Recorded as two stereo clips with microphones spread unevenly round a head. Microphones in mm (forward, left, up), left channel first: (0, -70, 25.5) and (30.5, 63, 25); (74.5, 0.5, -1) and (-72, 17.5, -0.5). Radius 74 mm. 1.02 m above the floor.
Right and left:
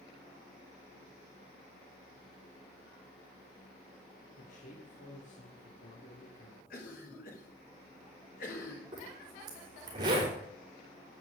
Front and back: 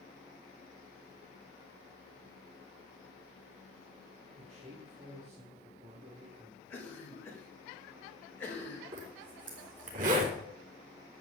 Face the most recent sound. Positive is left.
turn(degrees=140)